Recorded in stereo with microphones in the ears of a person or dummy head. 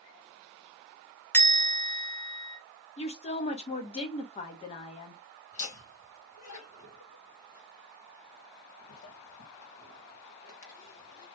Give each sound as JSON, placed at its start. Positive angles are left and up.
{"t": 1.3, "sound": "a bell", "side_deg": 10, "distance_m": 0.9}
{"t": 3.0, "sound": "a woman speaking", "side_deg": 25, "distance_m": 0.7}
{"t": 5.5, "sound": "laughter", "side_deg": 65, "distance_m": 1.4}